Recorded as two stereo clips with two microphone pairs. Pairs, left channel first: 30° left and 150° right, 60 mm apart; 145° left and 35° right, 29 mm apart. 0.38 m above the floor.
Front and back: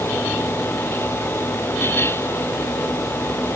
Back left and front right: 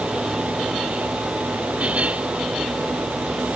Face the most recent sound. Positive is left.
No sound to turn to.